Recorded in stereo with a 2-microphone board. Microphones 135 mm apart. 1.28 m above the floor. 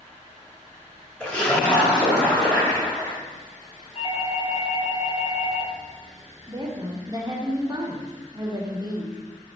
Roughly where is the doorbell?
Left.